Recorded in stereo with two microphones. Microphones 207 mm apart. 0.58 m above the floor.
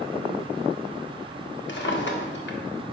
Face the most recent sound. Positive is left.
turn(degrees=60)  # may be behind; listen again after turning